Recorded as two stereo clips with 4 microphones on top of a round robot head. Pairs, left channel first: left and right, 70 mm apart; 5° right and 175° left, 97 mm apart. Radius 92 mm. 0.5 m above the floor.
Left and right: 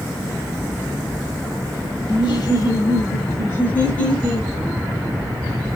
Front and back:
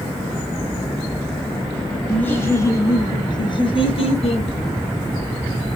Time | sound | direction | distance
2.1 | laughter | 70° left | 2.5 m